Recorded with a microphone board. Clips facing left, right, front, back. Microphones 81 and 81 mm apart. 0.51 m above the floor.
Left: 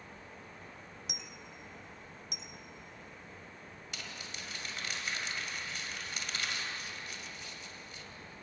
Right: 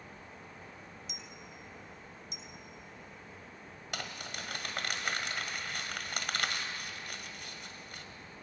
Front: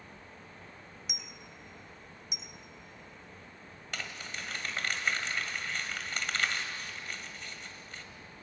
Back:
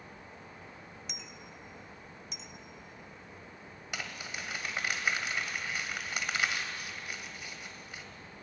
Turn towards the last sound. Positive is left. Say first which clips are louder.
# right 6 dB, even
turn(degrees=-100)